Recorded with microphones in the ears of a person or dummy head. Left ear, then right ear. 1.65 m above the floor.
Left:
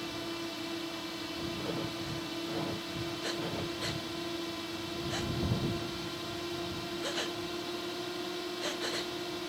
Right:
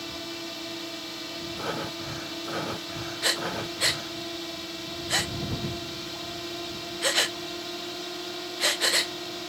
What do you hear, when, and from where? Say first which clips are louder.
0.0 s a drone: right 3 dB; 20° right (ahead or behind)
1.6 s breathing: right 5 dB; 50° right (ahead or behind)
3.2 s breathing: right 11 dB; 40° right (ahead or behind)